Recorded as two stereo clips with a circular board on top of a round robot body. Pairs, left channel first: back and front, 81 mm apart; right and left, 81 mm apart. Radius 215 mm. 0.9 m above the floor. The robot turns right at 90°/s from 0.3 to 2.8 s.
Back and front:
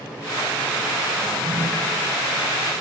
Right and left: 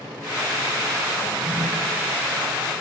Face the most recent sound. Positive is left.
turn(degrees=125)